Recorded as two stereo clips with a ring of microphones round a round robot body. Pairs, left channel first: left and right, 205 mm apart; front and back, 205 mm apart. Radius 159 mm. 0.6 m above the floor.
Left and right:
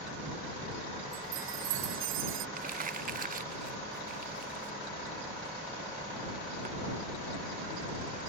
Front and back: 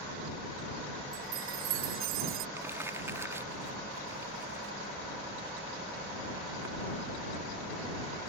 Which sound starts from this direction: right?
Crumpling, at 2.6 s.